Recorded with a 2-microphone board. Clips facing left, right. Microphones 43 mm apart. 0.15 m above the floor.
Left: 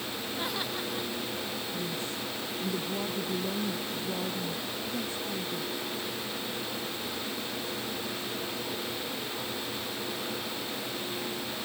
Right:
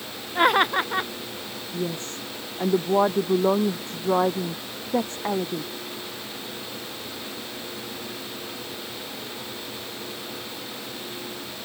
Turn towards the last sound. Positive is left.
turn(degrees=-65)  # may be behind; listen again after turning